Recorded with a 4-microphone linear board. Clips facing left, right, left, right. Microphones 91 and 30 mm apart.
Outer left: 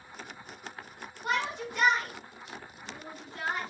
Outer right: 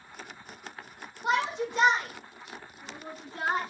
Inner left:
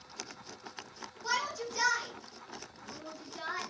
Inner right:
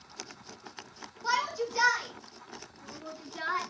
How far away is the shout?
About 5.5 m.